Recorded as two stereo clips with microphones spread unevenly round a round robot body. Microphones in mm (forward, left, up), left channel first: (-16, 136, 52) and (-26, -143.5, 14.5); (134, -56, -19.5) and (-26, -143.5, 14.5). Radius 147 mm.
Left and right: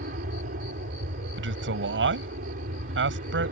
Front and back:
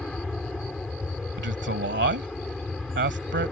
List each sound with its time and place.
0.0 s an aircraft: 55° right
1.4 s a man speaking: 135° right